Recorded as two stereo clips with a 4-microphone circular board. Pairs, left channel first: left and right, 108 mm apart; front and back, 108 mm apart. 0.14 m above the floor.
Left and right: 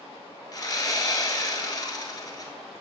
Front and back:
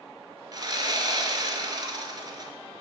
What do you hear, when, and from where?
0.5 s sawing: 135° left, 1.0 m